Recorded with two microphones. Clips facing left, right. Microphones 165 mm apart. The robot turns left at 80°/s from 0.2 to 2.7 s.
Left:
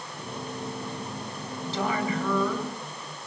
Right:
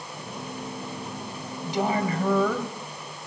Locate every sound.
1.6 s a woman speaking: 5° right, 2.5 m; by 2.7 s 90° right, 2.5 m